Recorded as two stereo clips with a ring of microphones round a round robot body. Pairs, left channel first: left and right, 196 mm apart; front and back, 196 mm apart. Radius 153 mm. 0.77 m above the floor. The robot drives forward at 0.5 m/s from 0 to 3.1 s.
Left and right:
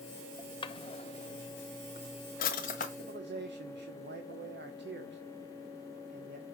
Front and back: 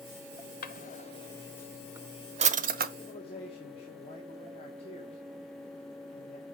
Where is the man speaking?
60° right, 1.6 m; by 6.5 s 65° right, 1.5 m.